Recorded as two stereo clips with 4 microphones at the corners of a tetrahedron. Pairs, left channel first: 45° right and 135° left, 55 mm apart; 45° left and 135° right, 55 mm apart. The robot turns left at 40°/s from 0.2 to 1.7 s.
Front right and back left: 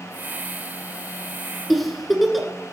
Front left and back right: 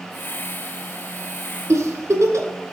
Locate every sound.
1.7 s a giggle: 135° right, 1.8 m